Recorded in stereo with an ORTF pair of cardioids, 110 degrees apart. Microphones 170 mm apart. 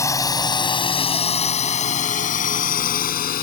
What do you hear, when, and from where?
0.0 s a drone: 20° left; by 3.4 s 60° left